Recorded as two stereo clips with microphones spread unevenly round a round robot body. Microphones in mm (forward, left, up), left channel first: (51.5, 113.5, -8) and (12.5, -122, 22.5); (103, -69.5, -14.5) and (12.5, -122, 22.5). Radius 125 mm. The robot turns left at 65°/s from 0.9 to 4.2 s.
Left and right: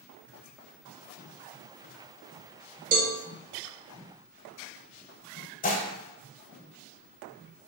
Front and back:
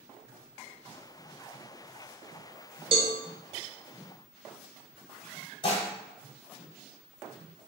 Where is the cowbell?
130° right, 0.8 m; by 3.1 s 145° right, 0.8 m.